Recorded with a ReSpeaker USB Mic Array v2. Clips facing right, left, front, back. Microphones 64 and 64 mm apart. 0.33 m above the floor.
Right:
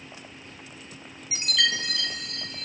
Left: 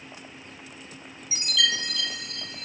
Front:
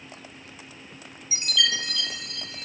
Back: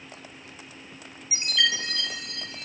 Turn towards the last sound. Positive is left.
turn(degrees=-125)